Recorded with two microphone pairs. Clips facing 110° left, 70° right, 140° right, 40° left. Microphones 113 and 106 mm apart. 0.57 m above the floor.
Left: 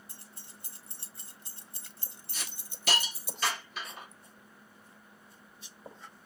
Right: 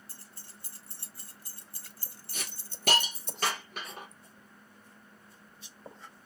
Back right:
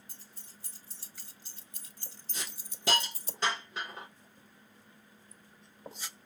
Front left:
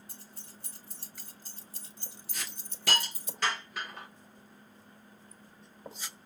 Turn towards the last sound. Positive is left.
turn(degrees=-80)